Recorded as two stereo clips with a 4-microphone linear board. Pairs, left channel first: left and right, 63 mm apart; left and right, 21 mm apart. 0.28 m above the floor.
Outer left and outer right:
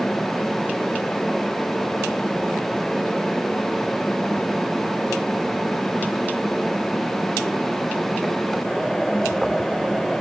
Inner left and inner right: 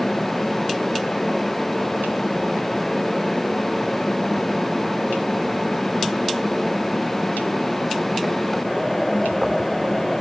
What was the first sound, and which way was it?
Only background noise.